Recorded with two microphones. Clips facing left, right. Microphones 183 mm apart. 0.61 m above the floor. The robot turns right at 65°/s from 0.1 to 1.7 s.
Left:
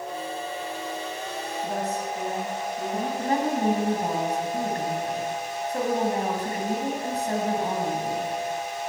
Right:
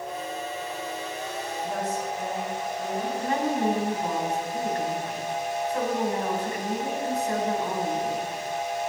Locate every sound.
1.6 s a woman speaking: 65° left (ahead or behind), 6.5 m; by 3.1 s 60° left (ahead or behind), 6.5 m
3.2 s a woman speaking: 40° left (ahead or behind), 3.5 m